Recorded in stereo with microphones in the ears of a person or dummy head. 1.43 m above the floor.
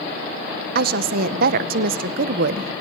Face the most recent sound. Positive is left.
turn(degrees=-50)  # may be behind; listen again after turning